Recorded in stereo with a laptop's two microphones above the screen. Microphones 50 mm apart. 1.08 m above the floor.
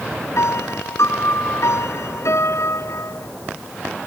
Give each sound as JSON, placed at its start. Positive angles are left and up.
{"t": 0.4, "sound": "a piano", "side_deg": 70}